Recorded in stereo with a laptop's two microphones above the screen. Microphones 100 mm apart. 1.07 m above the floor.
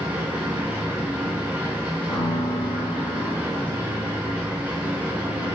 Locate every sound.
0.0 s a machine running: 20° right (ahead or behind), 0.8 m
2.1 s a piano: 60° left (ahead or behind), 1.5 m